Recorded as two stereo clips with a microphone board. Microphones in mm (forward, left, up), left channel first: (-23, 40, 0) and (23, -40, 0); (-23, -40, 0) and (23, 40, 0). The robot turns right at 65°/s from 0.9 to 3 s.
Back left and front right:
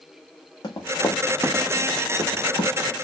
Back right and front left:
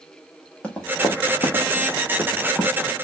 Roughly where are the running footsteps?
Behind.